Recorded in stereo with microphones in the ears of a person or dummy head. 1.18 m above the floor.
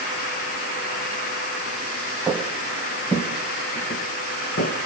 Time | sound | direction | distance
2.3 | footsteps | 5° right (ahead or behind) | 2.5 m